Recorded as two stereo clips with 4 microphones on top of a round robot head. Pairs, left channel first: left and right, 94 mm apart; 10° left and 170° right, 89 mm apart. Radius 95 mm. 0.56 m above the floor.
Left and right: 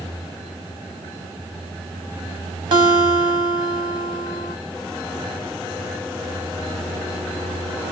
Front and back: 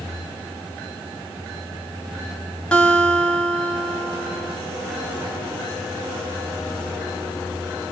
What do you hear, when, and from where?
2.7 s a guitar: 70° right, 1.6 m